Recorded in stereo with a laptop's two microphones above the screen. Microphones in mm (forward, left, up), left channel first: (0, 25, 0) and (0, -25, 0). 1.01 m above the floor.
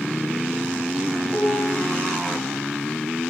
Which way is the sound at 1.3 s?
15° left (ahead or behind).